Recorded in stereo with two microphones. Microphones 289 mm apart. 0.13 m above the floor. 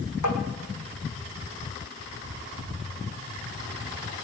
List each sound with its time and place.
0.2 s tapping: 75° left (ahead or behind), 3.5 m